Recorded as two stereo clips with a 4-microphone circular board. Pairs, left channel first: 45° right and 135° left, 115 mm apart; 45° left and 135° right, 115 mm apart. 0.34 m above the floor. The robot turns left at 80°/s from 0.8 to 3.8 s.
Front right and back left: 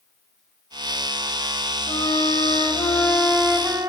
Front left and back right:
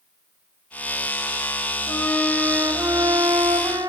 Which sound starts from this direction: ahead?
A flute, at 1.9 s.